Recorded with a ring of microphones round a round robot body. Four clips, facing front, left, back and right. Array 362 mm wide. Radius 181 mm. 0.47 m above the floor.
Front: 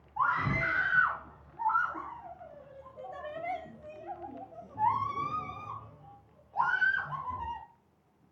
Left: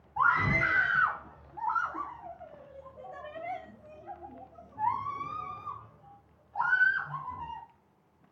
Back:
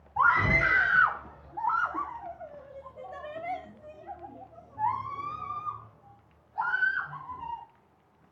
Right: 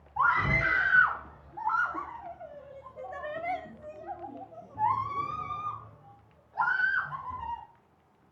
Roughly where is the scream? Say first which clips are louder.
Even, back 6 dB; behind.